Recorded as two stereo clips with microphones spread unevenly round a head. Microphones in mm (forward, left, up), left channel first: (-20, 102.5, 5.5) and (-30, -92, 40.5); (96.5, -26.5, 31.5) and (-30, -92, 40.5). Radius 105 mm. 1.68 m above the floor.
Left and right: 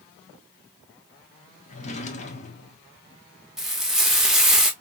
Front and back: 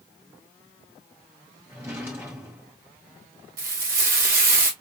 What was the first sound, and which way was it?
A drawer, 140° left.